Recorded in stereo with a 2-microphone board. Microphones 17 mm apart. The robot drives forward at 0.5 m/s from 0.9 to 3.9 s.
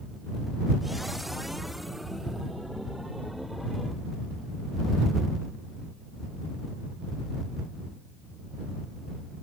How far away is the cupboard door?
I don't hear a cupboard door.